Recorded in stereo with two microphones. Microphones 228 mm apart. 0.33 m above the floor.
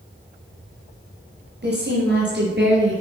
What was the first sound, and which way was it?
A woman speaking, 50° right (ahead or behind).